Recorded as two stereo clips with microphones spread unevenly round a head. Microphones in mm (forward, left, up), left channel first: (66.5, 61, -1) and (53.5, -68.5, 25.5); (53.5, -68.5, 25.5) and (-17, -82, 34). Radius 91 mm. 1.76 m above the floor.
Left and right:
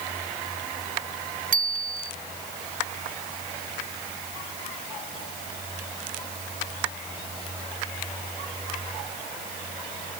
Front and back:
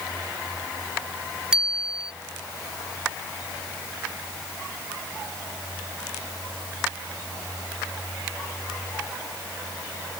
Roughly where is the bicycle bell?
Right.